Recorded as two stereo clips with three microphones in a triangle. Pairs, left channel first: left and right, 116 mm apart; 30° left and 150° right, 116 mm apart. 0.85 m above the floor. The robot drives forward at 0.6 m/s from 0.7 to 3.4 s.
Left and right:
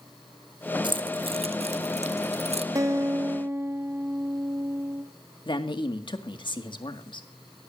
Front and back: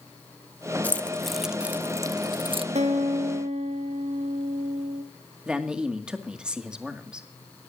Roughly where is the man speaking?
Behind left.